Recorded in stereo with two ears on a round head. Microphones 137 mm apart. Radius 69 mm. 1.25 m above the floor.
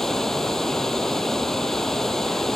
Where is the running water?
5° left (ahead or behind).